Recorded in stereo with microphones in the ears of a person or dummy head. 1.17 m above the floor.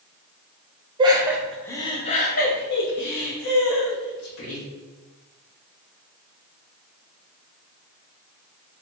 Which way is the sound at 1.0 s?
25° right (ahead or behind).